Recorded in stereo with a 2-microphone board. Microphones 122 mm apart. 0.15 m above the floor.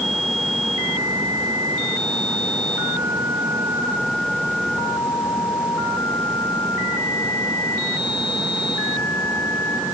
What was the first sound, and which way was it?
Only background noise.